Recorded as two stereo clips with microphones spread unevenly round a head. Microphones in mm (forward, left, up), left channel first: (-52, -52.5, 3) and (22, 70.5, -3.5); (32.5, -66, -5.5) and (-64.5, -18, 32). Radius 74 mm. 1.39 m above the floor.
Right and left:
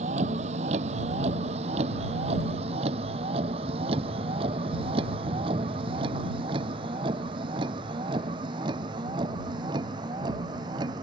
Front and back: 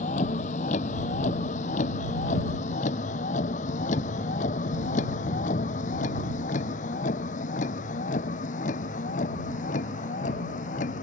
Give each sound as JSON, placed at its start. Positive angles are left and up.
{"t": 0.0, "sound": "a vehicle", "azimuth_deg": 10}